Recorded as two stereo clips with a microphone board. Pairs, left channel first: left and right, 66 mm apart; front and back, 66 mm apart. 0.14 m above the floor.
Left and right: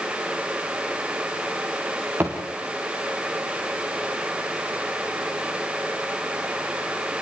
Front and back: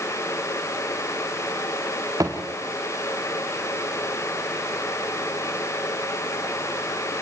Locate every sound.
2.2 s a thud: 145° right, 5.5 m